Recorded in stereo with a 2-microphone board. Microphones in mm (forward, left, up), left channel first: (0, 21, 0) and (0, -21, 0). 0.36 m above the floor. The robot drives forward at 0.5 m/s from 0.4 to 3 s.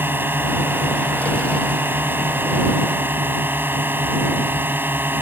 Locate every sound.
0.0 s a drone: 60° right (ahead or behind); by 5.2 s 55° right (ahead or behind)